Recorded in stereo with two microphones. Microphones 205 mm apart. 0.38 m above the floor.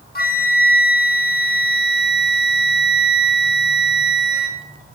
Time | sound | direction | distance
0.1 | a flute | 45° left (ahead or behind) | 0.8 m